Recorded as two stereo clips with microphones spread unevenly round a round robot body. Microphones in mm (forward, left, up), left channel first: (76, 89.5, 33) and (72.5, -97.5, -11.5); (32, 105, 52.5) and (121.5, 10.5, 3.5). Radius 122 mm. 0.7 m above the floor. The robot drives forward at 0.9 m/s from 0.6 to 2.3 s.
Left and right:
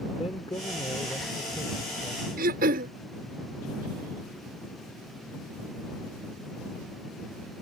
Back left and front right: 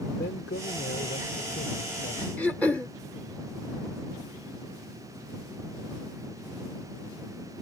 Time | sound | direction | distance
0.2 | a man speaking | 165° left | ?
2.4 | throat clearing | 140° right | ?